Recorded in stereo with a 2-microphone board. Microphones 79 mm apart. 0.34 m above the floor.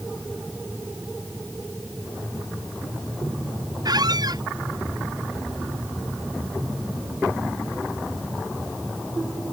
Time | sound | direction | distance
3.9 | a squeak | 55° right (ahead or behind) | ?